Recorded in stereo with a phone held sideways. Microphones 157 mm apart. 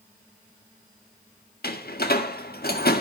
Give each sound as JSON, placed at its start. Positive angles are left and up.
{"t": 1.6, "sound": "a door slam", "side_deg": 80, "distance_m": 1.7}